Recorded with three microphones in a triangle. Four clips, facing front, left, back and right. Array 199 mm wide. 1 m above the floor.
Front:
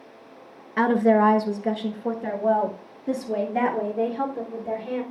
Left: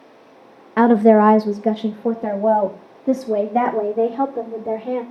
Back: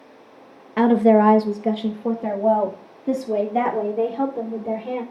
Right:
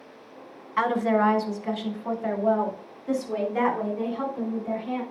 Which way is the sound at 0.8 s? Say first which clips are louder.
Left 11 dB, back 4 dB; 105° left.